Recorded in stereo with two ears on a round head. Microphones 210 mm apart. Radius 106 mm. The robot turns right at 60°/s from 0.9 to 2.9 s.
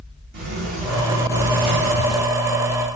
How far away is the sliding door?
About 3.5 m.